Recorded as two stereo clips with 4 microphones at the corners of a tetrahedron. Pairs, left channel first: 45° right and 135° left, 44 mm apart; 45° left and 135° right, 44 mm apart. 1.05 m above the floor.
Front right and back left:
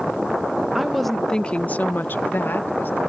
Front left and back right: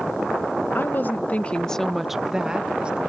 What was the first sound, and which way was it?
A woman speaking, 55° left.